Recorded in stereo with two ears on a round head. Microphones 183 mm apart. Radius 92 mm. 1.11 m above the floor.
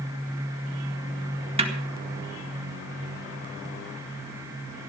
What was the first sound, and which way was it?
A snare drum, 30° right (ahead or behind).